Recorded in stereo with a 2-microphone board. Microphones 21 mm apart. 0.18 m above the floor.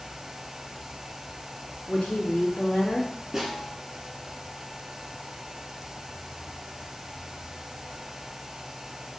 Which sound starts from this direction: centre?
A snare drum, at 3.3 s.